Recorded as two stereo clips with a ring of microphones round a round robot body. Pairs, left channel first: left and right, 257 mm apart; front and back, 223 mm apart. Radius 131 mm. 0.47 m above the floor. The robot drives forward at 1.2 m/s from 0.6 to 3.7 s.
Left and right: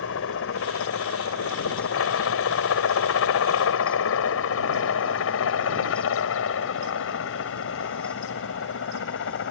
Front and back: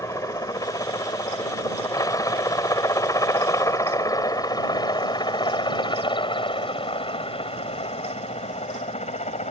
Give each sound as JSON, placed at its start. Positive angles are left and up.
{"t": 0.0, "sound": "a helicopter", "azimuth_deg": 75}